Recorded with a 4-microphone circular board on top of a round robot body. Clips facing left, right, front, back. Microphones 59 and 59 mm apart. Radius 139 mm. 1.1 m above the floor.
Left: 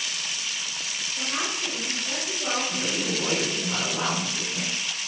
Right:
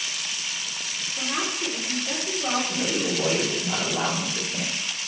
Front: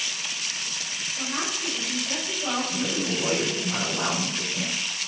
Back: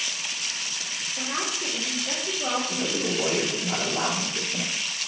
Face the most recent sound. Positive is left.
turn(degrees=-165)